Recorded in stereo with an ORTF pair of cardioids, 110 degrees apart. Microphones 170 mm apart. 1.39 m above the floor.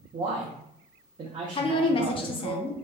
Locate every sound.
0.1 s a man speaking: 30° right, 0.5 m
1.6 s a woman speaking: 30° left, 0.6 m